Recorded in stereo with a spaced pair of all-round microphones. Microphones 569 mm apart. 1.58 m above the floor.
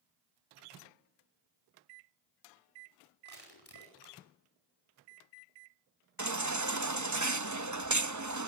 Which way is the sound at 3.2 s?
40° left (ahead or behind).